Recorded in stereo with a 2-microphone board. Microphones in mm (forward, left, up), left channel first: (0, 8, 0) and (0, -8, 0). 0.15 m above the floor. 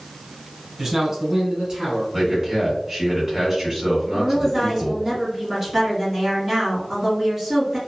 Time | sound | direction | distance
0.8 | a man speaking | 20° right (ahead or behind) | 1.0 m
2.1 | a man speaking | 15° right (ahead or behind) | 1.9 m
4.1 | a woman speaking | 10° right (ahead or behind) | 1.6 m